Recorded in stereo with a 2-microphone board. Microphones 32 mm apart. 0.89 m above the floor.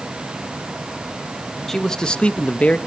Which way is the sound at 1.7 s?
10° left (ahead or behind).